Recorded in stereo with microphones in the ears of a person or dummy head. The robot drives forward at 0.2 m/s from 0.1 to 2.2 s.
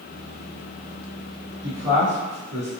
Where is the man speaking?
Centre (ahead or behind), 1.5 m.